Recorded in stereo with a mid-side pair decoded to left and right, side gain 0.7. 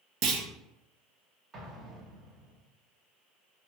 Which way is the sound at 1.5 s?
30° right.